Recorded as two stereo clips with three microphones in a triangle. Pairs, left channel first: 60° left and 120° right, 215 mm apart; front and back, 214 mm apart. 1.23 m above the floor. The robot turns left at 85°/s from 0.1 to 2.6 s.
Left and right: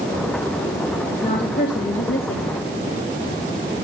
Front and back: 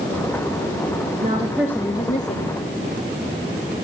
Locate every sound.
1.2 s a woman speaking: 125° left, 2.5 m; by 2.5 s 15° left, 2.5 m